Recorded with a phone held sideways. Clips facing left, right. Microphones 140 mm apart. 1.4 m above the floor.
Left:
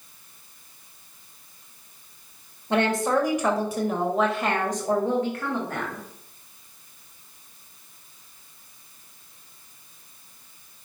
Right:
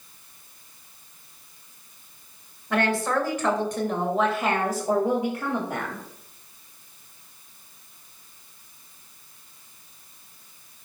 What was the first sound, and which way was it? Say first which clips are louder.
A woman speaking: left 2 dB; 25° left (ahead or behind).